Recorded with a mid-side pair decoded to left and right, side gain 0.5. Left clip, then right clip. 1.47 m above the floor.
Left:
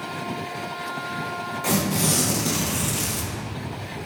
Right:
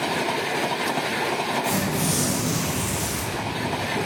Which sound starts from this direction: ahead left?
Tearing paper, at 1.6 s.